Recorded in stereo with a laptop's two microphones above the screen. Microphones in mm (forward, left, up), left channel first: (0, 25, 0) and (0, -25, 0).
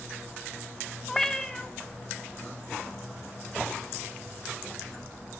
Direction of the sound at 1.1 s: 10° left (ahead or behind).